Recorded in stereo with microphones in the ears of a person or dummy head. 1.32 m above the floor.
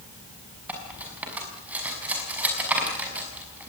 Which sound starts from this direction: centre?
Cutlery clinking, at 0.7 s.